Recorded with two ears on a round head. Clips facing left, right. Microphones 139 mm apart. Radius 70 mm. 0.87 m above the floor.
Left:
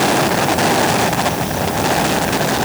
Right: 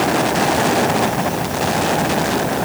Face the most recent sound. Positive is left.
No sound to turn to.